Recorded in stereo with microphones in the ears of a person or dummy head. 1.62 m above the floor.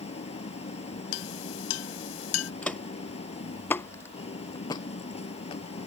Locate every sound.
0.0 s an engine running: 35° left (ahead or behind)
1.1 s a clink: 85° left
2.6 s footsteps: centre (ahead or behind); by 5.6 s 30° left (ahead or behind)